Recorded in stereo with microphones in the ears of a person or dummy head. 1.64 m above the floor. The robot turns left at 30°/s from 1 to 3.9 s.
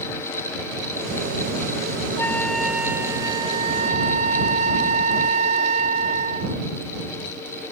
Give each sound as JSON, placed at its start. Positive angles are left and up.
{"t": 2.2, "sound": "a flute", "azimuth_deg": 10}